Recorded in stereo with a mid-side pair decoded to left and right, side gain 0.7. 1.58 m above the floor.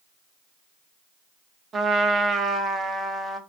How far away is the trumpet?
About 0.6 m.